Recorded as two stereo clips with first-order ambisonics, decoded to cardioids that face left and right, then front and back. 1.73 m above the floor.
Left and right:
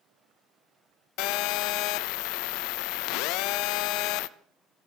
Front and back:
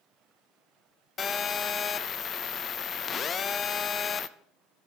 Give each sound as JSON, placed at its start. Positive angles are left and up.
{"t": 1.2, "sound": "a phone buzzing", "azimuth_deg": 65, "distance_m": 0.5}